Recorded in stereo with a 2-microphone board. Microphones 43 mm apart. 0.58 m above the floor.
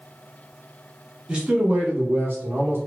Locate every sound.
1.3 s a man speaking: 20° right (ahead or behind), 0.9 m; by 2.8 s 55° right (ahead or behind), 1.4 m